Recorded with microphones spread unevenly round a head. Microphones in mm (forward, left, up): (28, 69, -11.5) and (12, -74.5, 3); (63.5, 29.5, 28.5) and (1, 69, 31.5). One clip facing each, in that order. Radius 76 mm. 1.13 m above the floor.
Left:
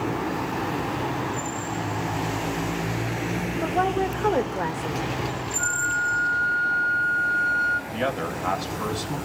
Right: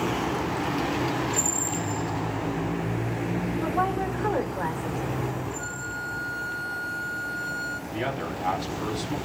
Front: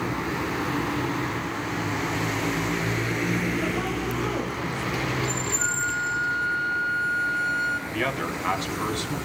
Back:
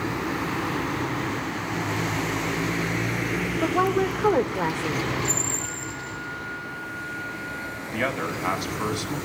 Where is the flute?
40° right, 1.6 m.